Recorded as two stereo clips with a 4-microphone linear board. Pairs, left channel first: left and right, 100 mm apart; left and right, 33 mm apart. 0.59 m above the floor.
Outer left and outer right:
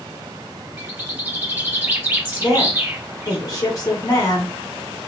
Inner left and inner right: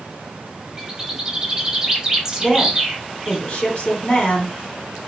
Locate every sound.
0.8 s a bird: 20° right (ahead or behind), 1.5 m
2.4 s a woman speaking: 40° left (ahead or behind), 1.7 m